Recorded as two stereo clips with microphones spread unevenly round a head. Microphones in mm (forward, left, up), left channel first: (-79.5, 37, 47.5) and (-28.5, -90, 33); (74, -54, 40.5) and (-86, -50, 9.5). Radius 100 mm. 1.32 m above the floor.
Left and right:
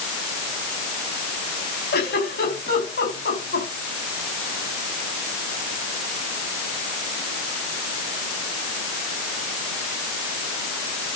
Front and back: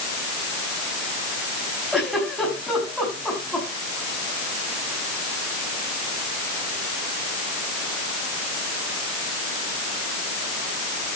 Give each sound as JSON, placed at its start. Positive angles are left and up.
{"t": 1.9, "sound": "a giggle", "azimuth_deg": 85, "distance_m": 5.5}